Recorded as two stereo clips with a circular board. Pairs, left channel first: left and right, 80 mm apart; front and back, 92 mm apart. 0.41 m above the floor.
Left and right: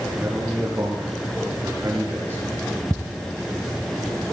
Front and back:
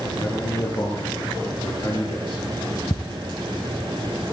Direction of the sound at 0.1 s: 30° right.